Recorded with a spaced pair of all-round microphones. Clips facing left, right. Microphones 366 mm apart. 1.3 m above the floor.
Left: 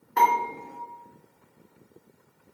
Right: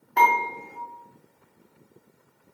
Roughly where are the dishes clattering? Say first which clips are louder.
Right 1 dB; centre.